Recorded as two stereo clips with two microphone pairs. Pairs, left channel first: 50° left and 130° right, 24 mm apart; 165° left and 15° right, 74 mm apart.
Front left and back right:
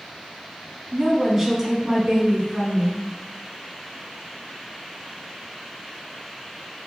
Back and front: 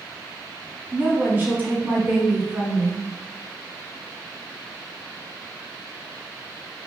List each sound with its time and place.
0.9 s a woman speaking: 60° right, 1.2 m; by 3.0 s 80° right, 2 m